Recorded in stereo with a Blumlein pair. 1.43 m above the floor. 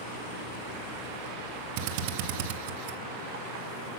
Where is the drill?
45° right, 1.2 m.